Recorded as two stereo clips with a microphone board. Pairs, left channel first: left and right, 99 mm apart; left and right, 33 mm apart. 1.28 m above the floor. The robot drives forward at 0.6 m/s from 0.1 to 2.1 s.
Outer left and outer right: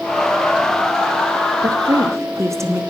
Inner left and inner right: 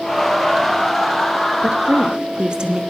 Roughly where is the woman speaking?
Right.